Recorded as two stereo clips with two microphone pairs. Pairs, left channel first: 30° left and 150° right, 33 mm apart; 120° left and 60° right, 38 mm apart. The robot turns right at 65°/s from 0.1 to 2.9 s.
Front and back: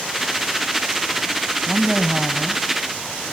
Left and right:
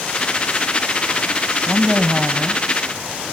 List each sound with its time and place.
1.7 s a woman speaking: 100° right, 1.2 m; by 2.6 s 35° right, 1.2 m